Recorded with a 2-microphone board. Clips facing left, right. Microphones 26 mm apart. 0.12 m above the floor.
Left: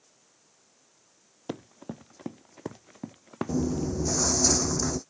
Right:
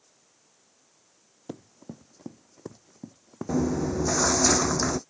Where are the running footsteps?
45° left (ahead or behind); by 4.3 s 70° left (ahead or behind).